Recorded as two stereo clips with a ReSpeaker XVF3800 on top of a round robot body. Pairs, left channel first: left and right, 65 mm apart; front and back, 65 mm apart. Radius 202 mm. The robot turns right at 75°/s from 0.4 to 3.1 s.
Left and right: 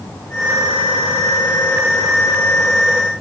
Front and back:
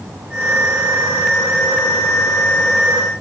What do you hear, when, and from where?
Only background noise.